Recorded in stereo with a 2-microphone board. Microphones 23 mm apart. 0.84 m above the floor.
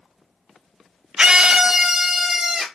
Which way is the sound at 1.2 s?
35° right (ahead or behind).